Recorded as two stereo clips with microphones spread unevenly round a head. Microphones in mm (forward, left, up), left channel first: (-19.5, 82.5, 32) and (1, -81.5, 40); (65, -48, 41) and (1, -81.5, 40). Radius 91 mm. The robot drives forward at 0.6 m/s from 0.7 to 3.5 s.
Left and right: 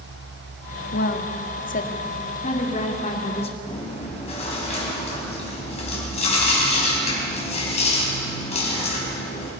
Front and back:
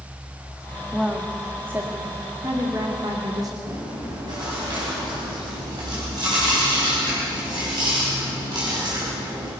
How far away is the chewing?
About 5 m.